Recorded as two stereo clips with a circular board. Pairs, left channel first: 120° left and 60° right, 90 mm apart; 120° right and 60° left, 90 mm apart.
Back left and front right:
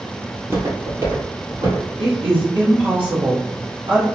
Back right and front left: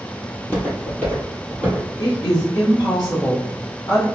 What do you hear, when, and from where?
0.3 s footsteps: 90° right, 1.5 m; by 1.9 s 50° right, 1.8 m
2.0 s a woman speaking: 75° right, 1.0 m